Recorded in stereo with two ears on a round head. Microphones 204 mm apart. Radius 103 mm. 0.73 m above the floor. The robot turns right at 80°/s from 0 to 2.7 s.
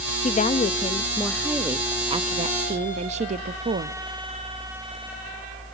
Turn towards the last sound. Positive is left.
turn(degrees=-30)  # may be behind; listen again after turning